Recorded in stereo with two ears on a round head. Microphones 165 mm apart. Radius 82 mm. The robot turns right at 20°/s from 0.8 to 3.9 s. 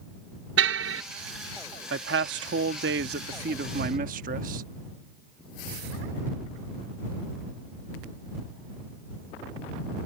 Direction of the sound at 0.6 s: 80° right.